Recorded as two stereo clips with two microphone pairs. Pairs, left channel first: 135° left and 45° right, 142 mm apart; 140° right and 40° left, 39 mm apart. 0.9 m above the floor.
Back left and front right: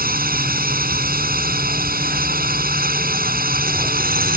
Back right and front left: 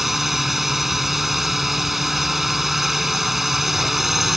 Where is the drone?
45° right.